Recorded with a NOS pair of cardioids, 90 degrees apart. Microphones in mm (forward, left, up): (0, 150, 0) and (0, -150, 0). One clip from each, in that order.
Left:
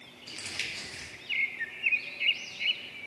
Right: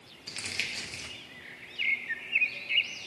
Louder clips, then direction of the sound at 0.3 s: Right 2 dB; 20° right.